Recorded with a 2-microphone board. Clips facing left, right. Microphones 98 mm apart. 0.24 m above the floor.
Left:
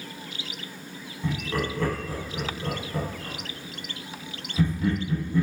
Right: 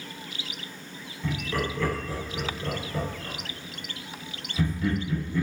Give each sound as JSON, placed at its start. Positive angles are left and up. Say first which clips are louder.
{"t": 1.2, "sound": "laughter", "louder": "left 1 dB", "side_deg": 35, "distance_m": 1.5}